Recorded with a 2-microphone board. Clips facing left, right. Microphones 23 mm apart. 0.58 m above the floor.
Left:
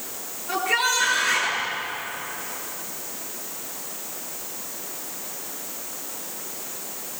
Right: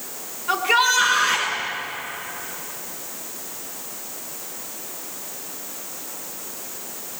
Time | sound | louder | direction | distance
0.5 | a shout | right 4 dB | 55° right (ahead or behind) | 6.5 m